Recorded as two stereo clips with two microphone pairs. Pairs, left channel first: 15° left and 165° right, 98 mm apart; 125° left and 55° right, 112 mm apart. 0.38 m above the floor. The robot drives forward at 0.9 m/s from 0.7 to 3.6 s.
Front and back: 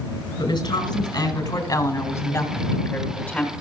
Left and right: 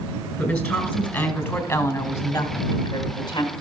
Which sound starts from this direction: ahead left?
A woman speaking, at 0.4 s.